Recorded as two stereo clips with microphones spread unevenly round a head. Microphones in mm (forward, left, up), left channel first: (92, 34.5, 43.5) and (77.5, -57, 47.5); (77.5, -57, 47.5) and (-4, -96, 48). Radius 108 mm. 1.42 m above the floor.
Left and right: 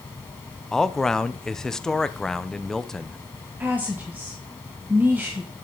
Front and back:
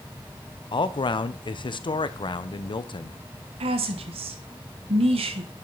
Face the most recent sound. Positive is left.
turn(degrees=-175)